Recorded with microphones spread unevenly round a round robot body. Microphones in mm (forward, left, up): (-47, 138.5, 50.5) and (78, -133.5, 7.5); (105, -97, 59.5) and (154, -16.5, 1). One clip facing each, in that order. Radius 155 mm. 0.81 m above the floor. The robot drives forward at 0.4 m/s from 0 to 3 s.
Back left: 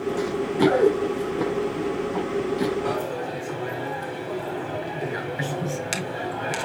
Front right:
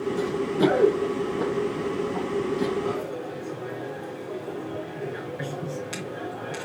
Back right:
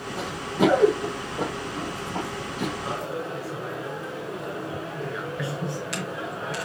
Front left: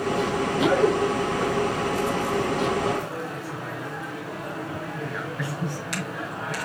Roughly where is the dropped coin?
Behind left.